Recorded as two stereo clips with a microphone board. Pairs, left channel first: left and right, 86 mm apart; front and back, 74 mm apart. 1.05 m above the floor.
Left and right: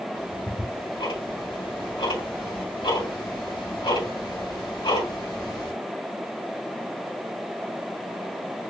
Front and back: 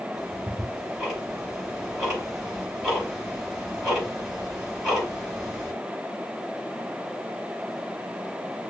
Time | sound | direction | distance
0.1 | ticking | 95° left | 4 m